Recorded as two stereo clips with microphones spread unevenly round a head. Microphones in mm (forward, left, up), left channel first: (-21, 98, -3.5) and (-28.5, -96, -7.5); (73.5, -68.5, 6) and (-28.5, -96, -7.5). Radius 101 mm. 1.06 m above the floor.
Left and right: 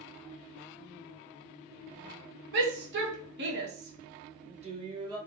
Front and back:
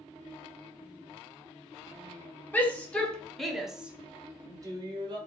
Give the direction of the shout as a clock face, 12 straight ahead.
2 o'clock.